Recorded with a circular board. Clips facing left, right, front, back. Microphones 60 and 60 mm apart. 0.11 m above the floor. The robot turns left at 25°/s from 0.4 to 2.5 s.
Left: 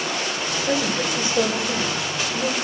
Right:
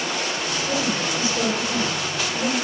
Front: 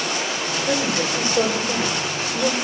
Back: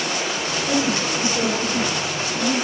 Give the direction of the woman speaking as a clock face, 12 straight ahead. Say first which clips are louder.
Left 2 dB, back 1 dB; 10 o'clock.